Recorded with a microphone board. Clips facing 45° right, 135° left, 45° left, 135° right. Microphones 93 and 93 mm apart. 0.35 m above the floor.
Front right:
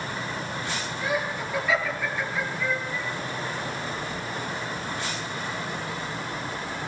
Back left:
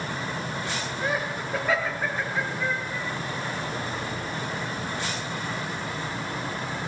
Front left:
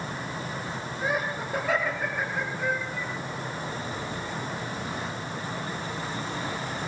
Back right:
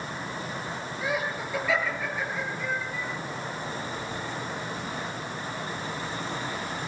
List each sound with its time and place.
1.0 s laughter: 90° left, 7.5 m; by 3.1 s 75° left, 7 m